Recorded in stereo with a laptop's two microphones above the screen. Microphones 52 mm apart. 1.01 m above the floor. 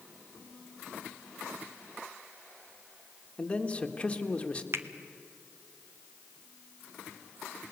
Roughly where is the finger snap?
Right.